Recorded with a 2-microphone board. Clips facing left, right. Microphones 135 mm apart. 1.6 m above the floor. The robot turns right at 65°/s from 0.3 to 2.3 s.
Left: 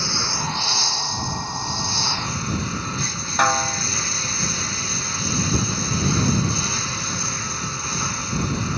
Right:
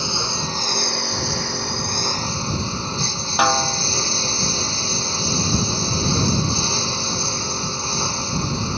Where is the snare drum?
10° right (ahead or behind).